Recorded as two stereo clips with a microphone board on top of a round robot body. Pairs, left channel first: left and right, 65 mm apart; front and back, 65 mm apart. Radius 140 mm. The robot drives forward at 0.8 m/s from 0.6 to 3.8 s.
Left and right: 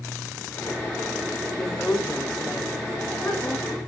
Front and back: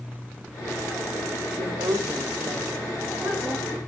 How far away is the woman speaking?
About 2 m.